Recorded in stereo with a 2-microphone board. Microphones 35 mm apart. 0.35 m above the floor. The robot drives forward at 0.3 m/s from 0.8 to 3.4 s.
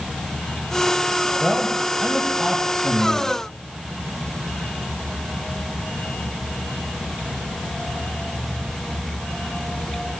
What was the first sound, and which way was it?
A man speaking, 5° left (ahead or behind).